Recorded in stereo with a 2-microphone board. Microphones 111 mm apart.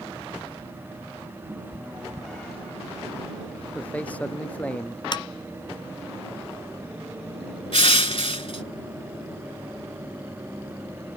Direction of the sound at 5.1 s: 45° left (ahead or behind).